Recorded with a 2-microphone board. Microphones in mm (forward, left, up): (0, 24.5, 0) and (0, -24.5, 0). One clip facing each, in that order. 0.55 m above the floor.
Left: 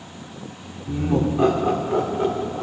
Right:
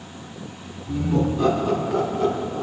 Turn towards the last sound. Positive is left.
turn(degrees=30)  # may be behind; listen again after turning